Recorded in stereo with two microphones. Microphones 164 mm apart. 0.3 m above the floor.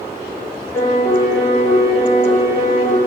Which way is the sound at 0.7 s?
15° left (ahead or behind).